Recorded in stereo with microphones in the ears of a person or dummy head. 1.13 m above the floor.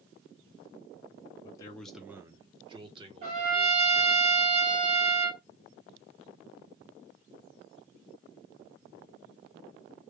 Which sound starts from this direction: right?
A trumpet, at 3.2 s.